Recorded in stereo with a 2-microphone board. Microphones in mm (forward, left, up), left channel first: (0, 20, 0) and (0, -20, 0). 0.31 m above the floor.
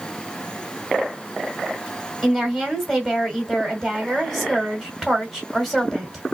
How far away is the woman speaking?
About 2 m.